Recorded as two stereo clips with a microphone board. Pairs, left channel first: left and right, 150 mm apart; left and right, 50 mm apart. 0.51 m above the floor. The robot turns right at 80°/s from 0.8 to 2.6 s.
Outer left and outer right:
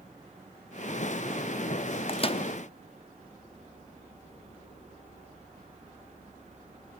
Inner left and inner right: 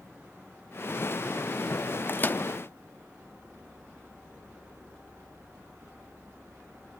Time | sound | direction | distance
2.1 | a microwave | 35° left (ahead or behind) | 0.6 m